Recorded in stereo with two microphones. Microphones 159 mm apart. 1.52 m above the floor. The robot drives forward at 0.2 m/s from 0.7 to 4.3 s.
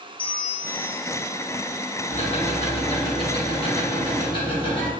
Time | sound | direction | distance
0.2 | a bell | 30° left (ahead or behind) | 0.6 m
2.1 | ticking | 45° left (ahead or behind) | 0.9 m